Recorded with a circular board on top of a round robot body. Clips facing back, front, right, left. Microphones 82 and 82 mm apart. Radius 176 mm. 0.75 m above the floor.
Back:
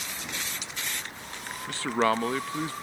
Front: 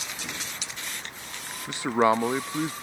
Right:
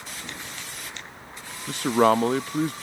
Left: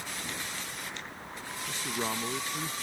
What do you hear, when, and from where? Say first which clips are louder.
1.7 s a man speaking: front 3 dB, right 16 dB; 70° right